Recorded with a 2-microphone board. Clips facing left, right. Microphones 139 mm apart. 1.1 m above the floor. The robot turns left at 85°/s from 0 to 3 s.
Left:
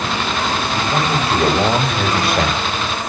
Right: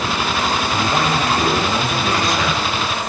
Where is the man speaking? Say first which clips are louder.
Left 1 dB; 165° right, 6.5 m; by 3.1 s 5° left, 6.5 m.